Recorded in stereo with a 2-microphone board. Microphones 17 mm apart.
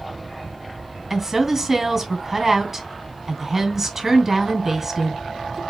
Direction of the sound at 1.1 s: 20° right (ahead or behind).